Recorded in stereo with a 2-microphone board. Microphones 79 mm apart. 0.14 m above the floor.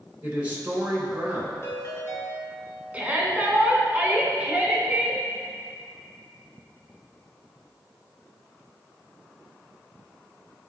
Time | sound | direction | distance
0.2 | a man speaking | 20° right (ahead or behind) | 1.7 m
1.6 | a ringtone | 35° left (ahead or behind) | 1.4 m
2.9 | a shout | 20° right (ahead or behind) | 1.1 m